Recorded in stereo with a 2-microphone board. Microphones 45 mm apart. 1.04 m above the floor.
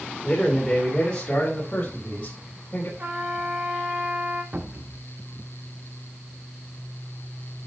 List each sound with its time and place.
0.2 s a man speaking: 15° left (ahead or behind), 3 m; by 2.9 s 45° left (ahead or behind), 3.5 m
3.0 s a trumpet: 45° right (ahead or behind), 1.5 m
4.5 s a cupboard door: 50° right (ahead or behind), 1.3 m